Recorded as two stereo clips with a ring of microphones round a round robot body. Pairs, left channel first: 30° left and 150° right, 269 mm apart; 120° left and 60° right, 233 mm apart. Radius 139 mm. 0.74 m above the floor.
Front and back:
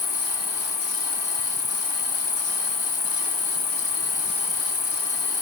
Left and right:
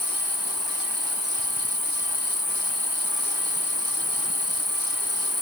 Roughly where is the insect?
Left.